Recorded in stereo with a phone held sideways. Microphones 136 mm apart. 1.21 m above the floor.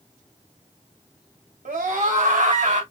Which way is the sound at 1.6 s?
85° right.